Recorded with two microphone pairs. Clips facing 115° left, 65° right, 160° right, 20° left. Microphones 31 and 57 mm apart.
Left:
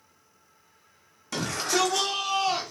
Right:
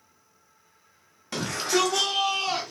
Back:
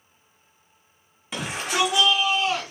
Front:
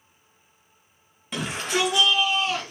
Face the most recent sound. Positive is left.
turn(degrees=-100)